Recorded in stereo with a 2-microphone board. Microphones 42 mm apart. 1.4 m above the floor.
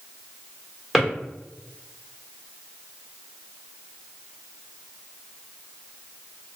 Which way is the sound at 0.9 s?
Centre (ahead or behind).